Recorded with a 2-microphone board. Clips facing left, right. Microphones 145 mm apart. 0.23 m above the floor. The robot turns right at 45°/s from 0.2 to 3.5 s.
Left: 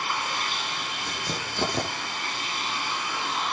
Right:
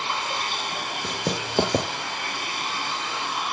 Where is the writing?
80° right, 6.5 m; by 1.9 s 50° right (ahead or behind), 6.5 m.